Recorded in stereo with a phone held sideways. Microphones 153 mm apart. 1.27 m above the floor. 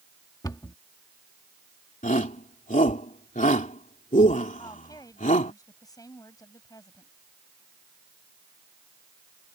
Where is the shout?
60° left (ahead or behind).